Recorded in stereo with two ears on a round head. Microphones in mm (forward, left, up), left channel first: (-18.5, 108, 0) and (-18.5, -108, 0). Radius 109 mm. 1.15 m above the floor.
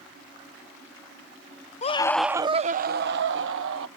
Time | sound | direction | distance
1.8 | a scream | 30° left (ahead or behind) | ?